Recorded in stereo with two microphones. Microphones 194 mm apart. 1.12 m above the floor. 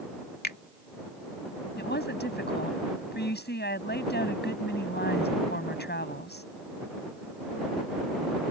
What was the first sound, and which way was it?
A finger snap, 55° left (ahead or behind).